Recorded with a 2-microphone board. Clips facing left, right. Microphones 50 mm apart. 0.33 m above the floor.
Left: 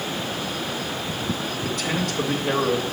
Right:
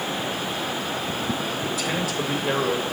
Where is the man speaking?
5° right (ahead or behind), 0.8 m.